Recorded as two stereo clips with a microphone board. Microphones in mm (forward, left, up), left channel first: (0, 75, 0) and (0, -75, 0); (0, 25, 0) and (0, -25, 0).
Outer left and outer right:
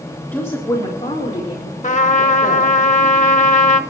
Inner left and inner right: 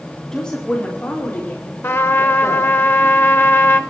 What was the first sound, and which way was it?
A woman speaking, 15° left (ahead or behind).